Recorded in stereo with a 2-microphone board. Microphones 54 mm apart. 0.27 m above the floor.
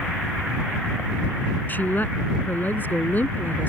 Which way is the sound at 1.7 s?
35° left (ahead or behind).